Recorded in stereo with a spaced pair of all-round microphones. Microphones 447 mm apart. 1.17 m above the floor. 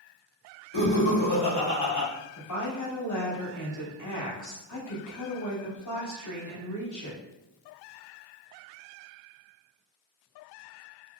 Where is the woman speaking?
40° left (ahead or behind), 0.8 m.